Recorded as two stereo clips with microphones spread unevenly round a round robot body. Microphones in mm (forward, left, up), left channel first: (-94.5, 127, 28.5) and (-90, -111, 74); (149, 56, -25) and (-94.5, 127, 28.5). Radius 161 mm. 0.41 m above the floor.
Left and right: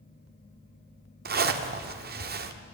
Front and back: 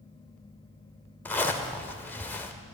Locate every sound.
1.2 s a zipper: 70° right, 1.6 m